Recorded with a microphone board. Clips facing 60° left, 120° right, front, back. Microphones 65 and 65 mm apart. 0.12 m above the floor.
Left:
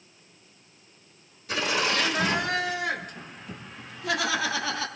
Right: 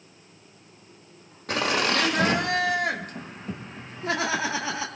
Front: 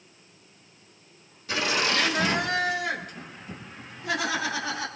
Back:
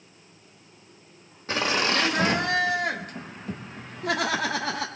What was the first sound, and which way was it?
Laughter, 135° right.